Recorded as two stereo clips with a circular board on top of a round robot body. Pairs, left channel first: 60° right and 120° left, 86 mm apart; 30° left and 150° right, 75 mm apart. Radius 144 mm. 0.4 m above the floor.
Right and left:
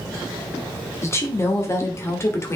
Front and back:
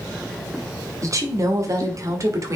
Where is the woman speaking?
115° right, 1.6 m.